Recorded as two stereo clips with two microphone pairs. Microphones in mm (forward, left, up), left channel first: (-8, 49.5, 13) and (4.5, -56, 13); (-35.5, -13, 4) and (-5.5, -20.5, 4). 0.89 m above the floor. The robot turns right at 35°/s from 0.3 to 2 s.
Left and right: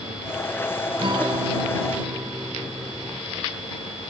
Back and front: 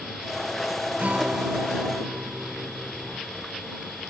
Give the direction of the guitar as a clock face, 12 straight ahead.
2 o'clock.